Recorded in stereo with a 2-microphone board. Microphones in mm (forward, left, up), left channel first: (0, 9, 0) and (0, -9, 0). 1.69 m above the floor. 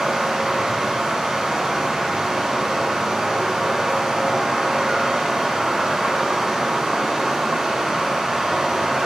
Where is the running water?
60° right (ahead or behind), 3 m.